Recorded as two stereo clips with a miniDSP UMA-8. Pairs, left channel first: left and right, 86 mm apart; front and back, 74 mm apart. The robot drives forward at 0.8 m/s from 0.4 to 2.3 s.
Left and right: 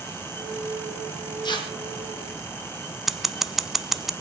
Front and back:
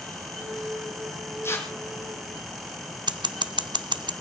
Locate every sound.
1.4 s tearing paper: 55° left, 3.5 m; by 1.7 s 60° left, 3 m
3.1 s scissors: 175° right, 0.7 m